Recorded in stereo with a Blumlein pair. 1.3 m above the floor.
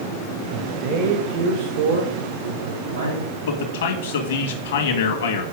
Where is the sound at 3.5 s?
60° left, 2 m.